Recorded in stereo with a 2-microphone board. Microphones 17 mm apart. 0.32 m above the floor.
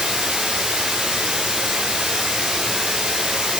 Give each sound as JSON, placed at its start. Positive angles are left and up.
{"t": 0.0, "sound": "running water", "side_deg": -70, "distance_m": 6.0}